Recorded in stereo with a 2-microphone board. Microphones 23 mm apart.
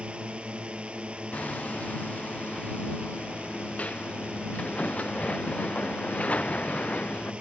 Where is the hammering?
90° left.